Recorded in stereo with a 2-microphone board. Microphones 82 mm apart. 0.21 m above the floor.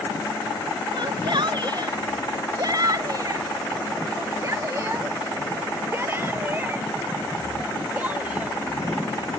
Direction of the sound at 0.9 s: 60° right (ahead or behind).